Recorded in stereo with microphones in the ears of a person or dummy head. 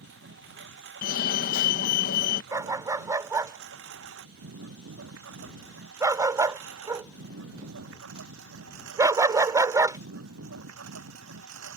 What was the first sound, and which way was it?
A lawn mower, 65° right (ahead or behind).